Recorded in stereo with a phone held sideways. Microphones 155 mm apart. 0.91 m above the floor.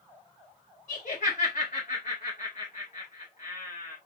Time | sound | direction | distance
0.9 | laughter | 60° left (ahead or behind) | 1.3 m